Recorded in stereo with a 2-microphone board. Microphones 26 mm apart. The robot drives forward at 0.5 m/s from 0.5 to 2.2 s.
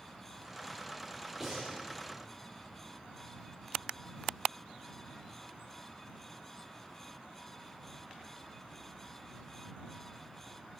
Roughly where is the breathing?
Centre.